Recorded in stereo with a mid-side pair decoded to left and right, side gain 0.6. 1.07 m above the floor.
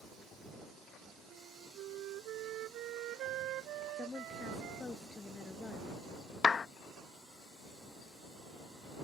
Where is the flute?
60° right.